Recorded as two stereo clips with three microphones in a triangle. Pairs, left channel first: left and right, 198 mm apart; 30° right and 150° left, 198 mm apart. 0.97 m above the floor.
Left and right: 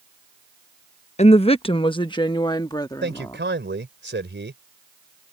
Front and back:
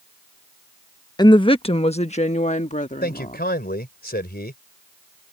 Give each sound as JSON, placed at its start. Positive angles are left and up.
{"t": 1.2, "sound": "a woman speaking", "azimuth_deg": 35}
{"t": 3.0, "sound": "a man speaking", "azimuth_deg": -65}